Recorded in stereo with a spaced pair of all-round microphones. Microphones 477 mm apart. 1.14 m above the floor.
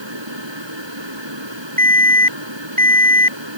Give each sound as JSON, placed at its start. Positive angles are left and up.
{"t": 0.0, "sound": "a fan", "side_deg": -65}
{"t": 1.8, "sound": "an alarm", "side_deg": -90}